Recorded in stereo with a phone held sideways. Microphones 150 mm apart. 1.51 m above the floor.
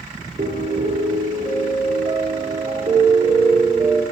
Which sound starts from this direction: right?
A piano, at 0.4 s.